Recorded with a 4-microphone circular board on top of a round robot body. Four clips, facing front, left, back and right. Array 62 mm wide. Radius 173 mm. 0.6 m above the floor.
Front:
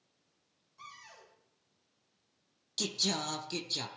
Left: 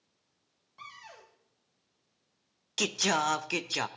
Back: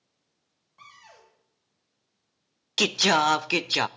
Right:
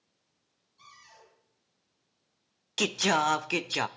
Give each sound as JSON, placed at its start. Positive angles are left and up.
{"t": 0.8, "sound": "a cupboard door", "azimuth_deg": 120, "distance_m": 3.5}
{"t": 2.8, "sound": "singing", "azimuth_deg": -170, "distance_m": 0.6}